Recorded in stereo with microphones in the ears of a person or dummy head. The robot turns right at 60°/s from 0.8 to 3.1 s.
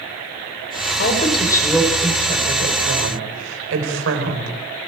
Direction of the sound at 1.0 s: 130° left.